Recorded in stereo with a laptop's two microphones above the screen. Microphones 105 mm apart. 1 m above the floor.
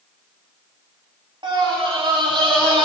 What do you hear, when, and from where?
1.4 s a scream: 50° right (ahead or behind), 2.5 m; by 2.9 s 60° right (ahead or behind), 3.5 m